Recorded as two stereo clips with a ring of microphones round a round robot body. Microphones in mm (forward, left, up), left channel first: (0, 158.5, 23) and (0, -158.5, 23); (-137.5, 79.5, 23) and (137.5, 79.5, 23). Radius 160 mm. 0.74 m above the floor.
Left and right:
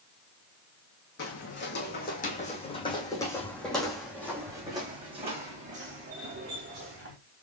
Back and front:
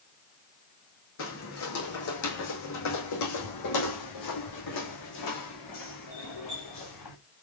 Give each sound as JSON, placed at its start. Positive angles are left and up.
{"t": 1.2, "sound": "footsteps", "azimuth_deg": 140, "distance_m": 2.0}